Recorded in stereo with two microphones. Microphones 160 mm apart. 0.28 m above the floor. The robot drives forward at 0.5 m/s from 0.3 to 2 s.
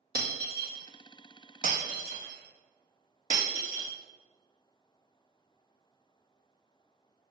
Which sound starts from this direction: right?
Breaking glass, at 0.1 s.